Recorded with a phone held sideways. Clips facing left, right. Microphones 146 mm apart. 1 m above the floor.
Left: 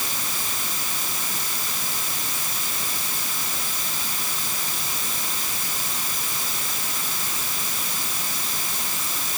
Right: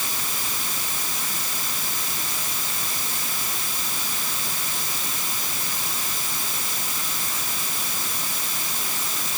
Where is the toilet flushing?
I don't hear a toilet flushing.